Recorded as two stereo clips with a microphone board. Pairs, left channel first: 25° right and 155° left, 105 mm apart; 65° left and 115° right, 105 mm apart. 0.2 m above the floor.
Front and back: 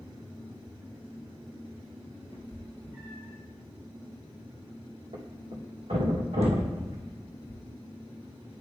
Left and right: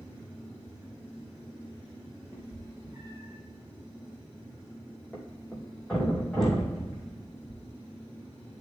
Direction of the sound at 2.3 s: 160° right.